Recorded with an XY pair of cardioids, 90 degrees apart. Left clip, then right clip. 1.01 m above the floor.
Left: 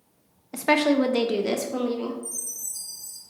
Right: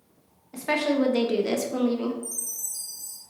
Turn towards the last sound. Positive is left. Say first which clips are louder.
# even
turn(degrees=-45)